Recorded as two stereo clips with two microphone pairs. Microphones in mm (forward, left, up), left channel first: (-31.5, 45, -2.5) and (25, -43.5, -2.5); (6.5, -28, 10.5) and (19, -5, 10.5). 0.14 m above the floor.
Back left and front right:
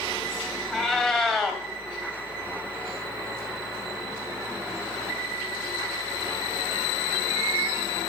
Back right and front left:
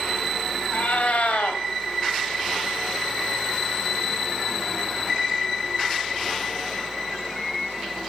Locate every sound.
0.7 s a cat meowing: 145° right, 2.5 m